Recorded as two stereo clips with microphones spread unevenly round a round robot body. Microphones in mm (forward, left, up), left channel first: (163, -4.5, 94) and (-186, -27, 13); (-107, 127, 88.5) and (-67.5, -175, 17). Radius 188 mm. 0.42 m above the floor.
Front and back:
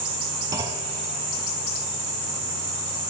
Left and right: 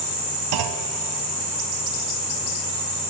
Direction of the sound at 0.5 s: 90° right.